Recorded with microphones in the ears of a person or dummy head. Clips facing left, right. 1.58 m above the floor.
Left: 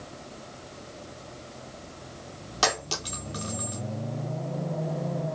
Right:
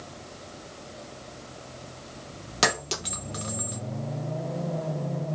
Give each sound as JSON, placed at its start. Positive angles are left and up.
{"t": 2.6, "sound": "a clink", "side_deg": -30, "distance_m": 1.1}